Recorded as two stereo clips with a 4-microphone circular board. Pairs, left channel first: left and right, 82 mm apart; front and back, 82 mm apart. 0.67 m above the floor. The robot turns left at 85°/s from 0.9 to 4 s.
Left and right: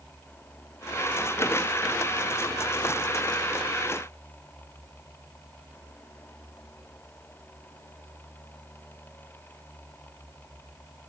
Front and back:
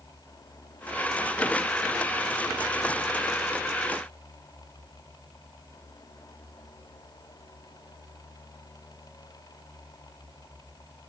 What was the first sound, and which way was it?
Only background noise.